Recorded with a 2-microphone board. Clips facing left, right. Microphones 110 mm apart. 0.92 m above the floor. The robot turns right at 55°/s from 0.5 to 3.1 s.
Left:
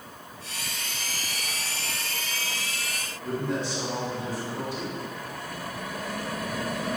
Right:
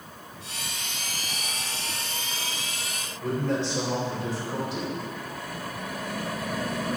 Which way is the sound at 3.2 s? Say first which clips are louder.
Right 2 dB; 80° right.